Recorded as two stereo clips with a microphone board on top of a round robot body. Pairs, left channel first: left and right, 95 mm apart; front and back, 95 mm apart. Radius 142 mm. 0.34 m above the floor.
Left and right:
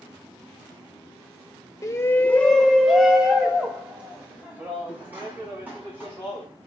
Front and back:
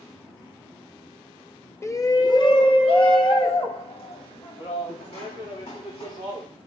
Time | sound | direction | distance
1.8 | a shout | 50° left | 1.0 m